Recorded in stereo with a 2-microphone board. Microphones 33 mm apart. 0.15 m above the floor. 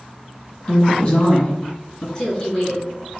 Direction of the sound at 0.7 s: 30° left (ahead or behind).